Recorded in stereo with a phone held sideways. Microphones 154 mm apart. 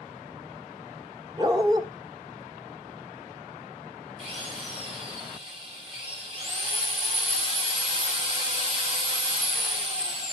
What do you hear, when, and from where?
1.4 s a dog barking: 25° right (ahead or behind), 1.3 m
4.2 s a drill: 40° right (ahead or behind), 5.5 m